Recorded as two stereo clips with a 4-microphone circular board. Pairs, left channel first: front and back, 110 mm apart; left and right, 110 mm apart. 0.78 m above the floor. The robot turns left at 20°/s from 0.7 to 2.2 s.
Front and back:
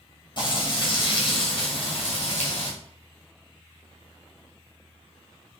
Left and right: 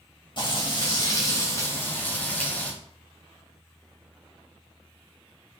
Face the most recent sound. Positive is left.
turn(degrees=15)